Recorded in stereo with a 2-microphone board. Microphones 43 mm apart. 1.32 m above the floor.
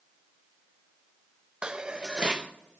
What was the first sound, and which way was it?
Dishes clattering, 20° right (ahead or behind).